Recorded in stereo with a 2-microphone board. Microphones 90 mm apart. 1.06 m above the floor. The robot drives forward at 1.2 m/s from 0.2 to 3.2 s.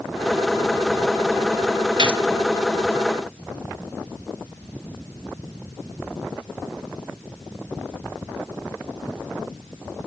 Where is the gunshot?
55° right (ahead or behind), 0.8 m; by 2.2 s 65° right (ahead or behind), 0.7 m.